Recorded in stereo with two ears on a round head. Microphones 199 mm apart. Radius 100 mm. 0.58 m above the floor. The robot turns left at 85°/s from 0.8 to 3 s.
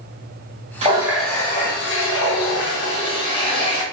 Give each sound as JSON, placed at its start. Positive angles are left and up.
{"t": 0.8, "sound": "a running tap", "azimuth_deg": -150, "distance_m": 0.8}